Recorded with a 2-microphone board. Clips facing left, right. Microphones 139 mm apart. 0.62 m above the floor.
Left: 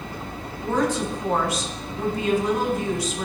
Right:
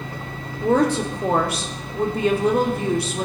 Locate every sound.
0.6 s a woman speaking: 60° right (ahead or behind), 2.0 m